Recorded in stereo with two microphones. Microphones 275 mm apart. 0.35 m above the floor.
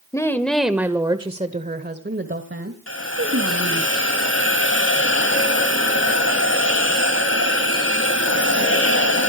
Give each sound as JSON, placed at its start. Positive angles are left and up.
{"t": 0.1, "sound": "a woman speaking", "side_deg": 10, "distance_m": 1.5}
{"t": 2.9, "sound": "a hiss", "side_deg": 60, "distance_m": 2.0}